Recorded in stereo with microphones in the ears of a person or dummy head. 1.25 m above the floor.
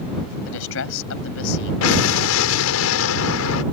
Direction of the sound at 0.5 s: 70° left (ahead or behind).